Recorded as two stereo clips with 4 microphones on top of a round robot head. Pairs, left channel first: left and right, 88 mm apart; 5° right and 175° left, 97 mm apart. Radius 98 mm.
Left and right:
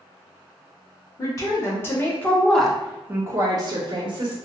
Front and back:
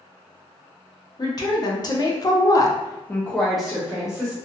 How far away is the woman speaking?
About 1.1 m.